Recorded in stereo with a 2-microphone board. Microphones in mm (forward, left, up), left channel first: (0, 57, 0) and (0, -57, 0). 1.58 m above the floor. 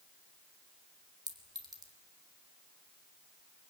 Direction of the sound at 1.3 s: 35° right (ahead or behind).